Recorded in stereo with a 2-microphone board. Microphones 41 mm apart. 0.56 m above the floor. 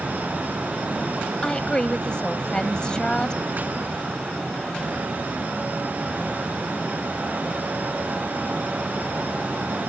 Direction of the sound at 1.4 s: 20° left (ahead or behind).